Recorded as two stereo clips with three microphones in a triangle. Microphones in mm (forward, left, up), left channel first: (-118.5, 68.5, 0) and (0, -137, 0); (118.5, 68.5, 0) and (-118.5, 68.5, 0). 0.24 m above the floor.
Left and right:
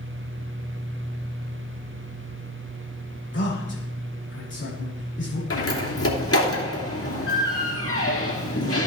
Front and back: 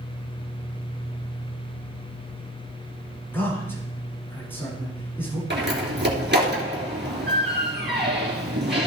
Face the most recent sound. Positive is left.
turn(degrees=135)